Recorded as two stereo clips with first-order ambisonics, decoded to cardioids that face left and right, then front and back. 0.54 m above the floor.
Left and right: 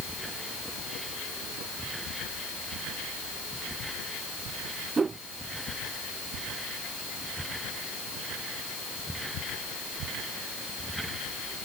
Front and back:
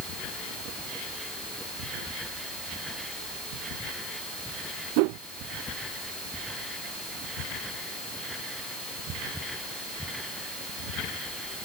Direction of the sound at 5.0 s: 165° right.